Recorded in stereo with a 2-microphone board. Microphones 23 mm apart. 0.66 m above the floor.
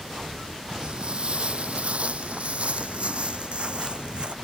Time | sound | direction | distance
0.7 | footsteps | 40° right (ahead or behind) | ?